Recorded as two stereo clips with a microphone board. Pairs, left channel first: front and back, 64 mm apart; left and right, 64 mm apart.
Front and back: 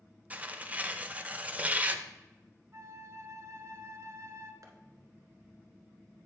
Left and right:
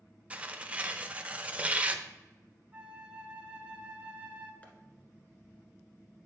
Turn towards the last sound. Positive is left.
turn(degrees=155)